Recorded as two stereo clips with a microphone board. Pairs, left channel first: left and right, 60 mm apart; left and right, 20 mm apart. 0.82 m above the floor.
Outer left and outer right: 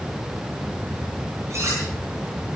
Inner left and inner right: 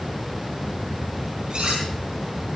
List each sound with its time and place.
1.5 s cutlery clinking: 50° right (ahead or behind), 9 m